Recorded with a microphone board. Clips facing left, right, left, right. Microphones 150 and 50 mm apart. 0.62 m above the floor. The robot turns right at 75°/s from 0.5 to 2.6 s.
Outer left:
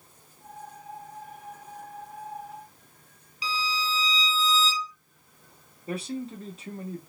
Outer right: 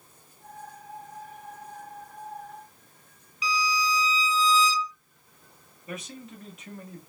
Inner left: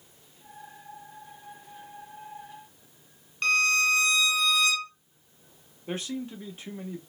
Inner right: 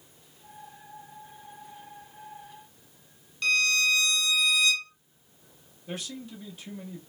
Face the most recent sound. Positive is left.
turn(degrees=30)  # may be behind; listen again after turning